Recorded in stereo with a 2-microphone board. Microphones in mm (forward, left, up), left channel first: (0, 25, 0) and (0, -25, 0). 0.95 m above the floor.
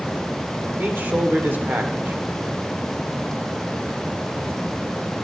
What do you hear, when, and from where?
0.8 s a man speaking: 45° right (ahead or behind), 2.5 m